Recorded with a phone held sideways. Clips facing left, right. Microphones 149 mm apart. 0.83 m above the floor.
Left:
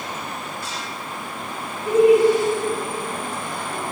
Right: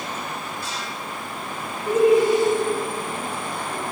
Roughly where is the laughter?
Centre.